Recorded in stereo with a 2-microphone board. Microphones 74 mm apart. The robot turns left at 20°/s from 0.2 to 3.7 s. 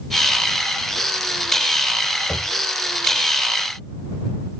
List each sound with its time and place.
2.3 s knocking: 30° left (ahead or behind); by 2.6 s 35° left (ahead or behind)